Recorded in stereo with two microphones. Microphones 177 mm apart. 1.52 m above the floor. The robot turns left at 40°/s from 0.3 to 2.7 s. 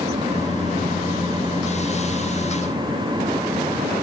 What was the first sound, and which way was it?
Only background noise.